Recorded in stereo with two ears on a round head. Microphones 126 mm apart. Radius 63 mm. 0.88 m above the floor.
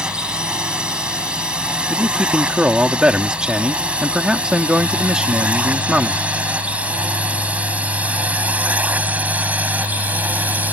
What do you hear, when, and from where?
0.0 s a drone: 5° right (ahead or behind); by 10.7 s 10° right (ahead or behind)
1.9 s a man speaking: 5° right (ahead or behind)